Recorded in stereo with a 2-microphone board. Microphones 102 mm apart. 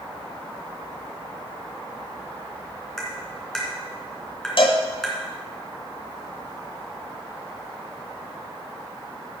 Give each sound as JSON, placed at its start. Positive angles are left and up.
{"t": 3.0, "sound": "tapping", "side_deg": 5, "distance_m": 3.0}
{"t": 4.6, "sound": "a cowbell", "side_deg": 60, "distance_m": 1.2}